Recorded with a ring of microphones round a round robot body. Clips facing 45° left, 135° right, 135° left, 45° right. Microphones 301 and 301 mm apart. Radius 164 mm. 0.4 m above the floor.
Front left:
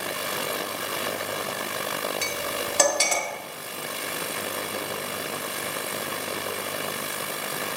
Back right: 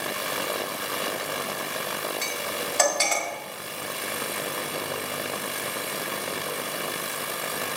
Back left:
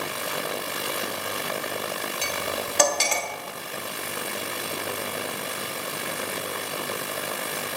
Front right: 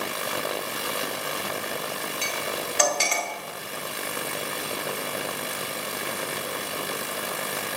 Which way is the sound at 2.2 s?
95° left.